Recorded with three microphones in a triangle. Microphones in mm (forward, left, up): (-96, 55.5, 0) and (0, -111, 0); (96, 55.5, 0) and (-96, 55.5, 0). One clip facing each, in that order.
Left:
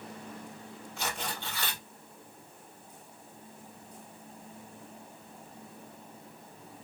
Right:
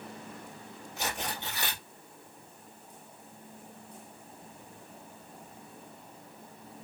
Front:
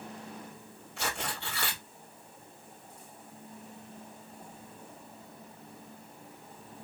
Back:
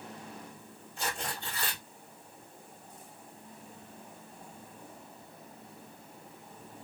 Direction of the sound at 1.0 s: 15° left.